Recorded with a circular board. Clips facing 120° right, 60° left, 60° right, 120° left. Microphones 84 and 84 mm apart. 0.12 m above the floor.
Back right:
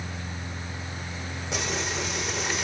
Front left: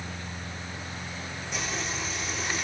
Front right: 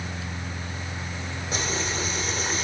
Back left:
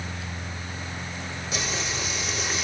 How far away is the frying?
About 6 m.